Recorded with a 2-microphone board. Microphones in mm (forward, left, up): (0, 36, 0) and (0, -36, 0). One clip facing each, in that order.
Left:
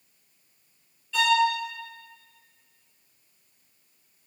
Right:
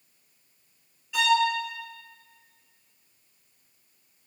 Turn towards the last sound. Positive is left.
turn(degrees=-15)  # may be behind; listen again after turning